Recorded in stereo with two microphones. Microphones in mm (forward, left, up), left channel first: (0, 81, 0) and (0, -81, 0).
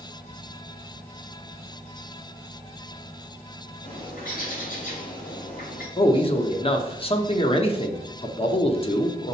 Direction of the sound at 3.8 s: 60° left (ahead or behind).